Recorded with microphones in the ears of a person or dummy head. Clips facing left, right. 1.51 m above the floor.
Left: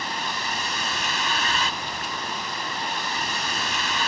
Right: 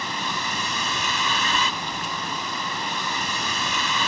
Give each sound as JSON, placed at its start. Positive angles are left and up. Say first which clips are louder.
{"t": 0.0, "sound": "a vehicle", "louder": "right 1 dB", "side_deg": -75}